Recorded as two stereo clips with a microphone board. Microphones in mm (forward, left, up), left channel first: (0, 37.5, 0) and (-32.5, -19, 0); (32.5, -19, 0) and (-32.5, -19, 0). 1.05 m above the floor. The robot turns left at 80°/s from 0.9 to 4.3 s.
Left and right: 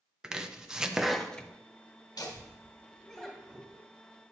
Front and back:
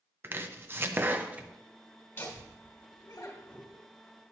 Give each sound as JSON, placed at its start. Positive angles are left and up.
{"t": 0.2, "sound": "chopping", "azimuth_deg": 170, "distance_m": 0.6}
{"t": 2.2, "sound": "laughter", "azimuth_deg": 55, "distance_m": 1.7}